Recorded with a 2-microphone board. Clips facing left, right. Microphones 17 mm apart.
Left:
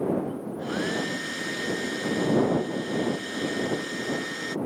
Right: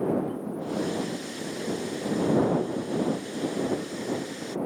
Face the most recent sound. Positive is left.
turn(degrees=80)